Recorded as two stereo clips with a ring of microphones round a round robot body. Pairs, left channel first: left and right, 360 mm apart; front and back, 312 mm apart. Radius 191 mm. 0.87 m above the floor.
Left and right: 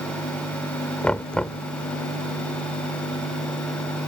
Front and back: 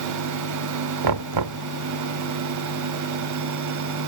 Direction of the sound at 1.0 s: 175° left.